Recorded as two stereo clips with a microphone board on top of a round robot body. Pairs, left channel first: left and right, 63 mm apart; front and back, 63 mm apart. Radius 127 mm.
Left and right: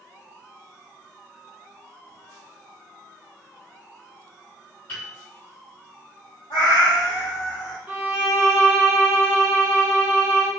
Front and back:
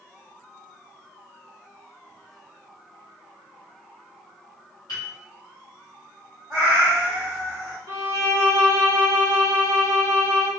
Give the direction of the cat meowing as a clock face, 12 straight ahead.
9 o'clock.